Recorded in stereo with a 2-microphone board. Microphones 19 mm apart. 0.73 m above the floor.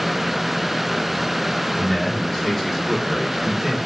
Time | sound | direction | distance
1.8 | a man speaking | 20° left (ahead or behind) | 3 m